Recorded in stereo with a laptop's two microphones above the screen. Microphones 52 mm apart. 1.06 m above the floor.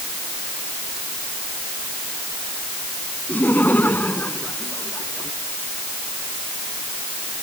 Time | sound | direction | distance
3.3 | laughter | 35° left (ahead or behind) | ?